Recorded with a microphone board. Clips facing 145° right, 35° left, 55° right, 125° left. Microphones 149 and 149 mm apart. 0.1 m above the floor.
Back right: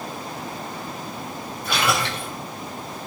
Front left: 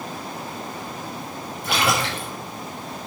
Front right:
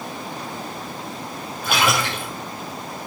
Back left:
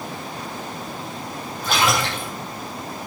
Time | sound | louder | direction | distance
1.6 | a splash | front left 1 dB, even | 25° left | 6.5 m